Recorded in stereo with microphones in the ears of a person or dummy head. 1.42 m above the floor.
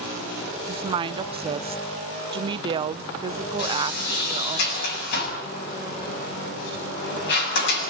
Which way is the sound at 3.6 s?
60° left (ahead or behind).